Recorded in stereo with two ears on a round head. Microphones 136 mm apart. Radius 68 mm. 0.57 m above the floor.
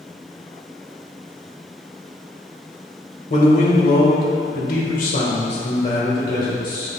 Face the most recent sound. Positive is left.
turn(degrees=30)  # may be behind; listen again after turning